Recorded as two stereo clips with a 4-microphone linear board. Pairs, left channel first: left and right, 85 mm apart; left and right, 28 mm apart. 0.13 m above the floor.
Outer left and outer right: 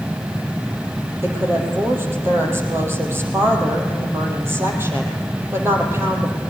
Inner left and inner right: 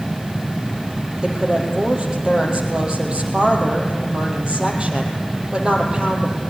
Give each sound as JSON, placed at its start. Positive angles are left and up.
{"t": 1.2, "sound": "a woman speaking", "side_deg": -30, "distance_m": 4.0}